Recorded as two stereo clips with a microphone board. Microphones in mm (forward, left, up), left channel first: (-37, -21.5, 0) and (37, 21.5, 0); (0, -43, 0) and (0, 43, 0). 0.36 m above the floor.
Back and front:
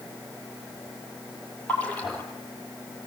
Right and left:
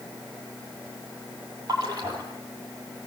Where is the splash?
135° left, 5.5 m.